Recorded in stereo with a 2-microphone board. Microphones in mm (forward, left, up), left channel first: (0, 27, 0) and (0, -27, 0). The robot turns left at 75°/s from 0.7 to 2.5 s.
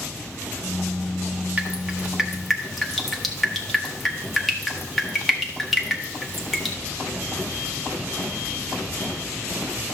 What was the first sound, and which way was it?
Dripping, 30° right (ahead or behind).